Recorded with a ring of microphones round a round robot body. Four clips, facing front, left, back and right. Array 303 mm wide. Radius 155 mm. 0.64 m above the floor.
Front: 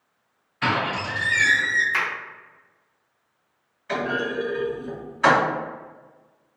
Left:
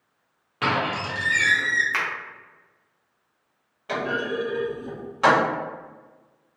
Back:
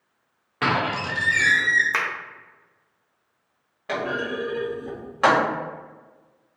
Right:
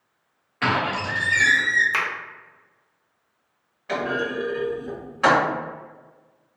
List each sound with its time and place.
0.6 s a squeak: 165° left, 1.0 m
1.9 s a finger snap: 160° right, 0.7 m
3.9 s a clunk: 170° left, 1.4 m